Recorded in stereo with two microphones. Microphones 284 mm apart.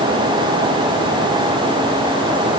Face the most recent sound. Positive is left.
No sound to turn to.